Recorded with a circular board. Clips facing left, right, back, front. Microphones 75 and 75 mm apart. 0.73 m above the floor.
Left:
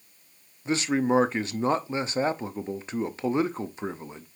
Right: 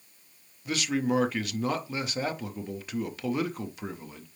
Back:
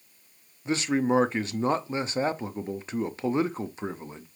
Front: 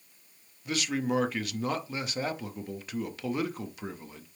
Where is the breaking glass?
I don't hear breaking glass.